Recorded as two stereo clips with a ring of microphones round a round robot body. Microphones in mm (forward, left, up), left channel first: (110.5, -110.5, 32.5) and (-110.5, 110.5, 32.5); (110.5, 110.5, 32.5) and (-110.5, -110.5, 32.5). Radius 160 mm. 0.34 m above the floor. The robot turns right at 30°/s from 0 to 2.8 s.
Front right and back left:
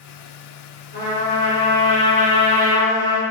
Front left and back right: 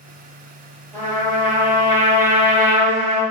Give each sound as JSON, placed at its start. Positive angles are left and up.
{"t": 0.9, "sound": "a trumpet", "azimuth_deg": -30, "distance_m": 1.6}